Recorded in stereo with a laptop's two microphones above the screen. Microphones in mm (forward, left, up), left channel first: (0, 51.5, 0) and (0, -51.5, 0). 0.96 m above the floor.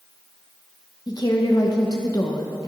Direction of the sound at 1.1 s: 40° left (ahead or behind).